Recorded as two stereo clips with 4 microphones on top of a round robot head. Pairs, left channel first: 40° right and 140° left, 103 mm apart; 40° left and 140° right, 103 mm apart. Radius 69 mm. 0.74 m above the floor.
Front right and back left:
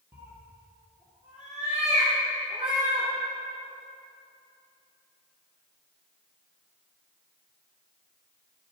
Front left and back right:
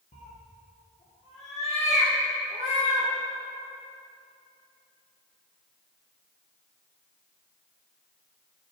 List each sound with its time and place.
0.1 s a cat meowing: 65° left, 3 m; by 3.1 s 60° left, 5.5 m